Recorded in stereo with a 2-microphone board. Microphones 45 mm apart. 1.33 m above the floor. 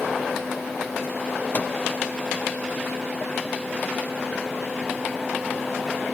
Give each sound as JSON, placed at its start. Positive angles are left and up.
{"t": 1.5, "sound": "a microwave", "side_deg": 45, "distance_m": 0.5}